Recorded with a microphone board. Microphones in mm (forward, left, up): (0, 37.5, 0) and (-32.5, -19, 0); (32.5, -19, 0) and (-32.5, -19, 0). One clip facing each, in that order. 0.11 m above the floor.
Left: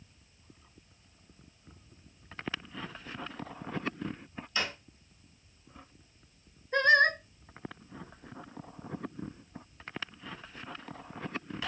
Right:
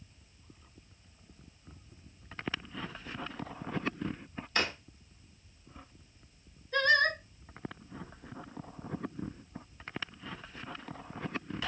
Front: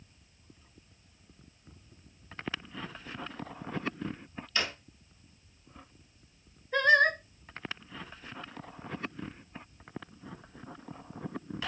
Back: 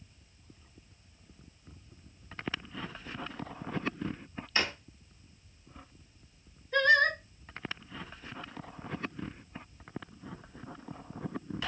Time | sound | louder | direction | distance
4.5 | a drawer | right 2 dB, back 2 dB | 125° right | 1.0 m
6.7 | singing | left 3 dB, front 1 dB | 65° left | 0.6 m